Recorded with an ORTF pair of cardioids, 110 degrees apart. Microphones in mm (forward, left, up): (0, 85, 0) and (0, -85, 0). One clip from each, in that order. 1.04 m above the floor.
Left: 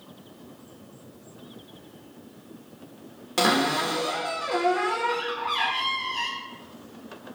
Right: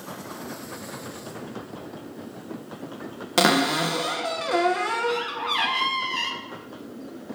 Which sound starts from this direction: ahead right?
A cupboard door, at 3.4 s.